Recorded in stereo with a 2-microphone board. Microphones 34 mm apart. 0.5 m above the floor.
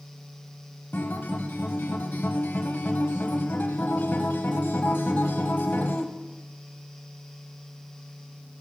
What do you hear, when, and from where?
0.9 s a guitar: 80° left, 0.9 m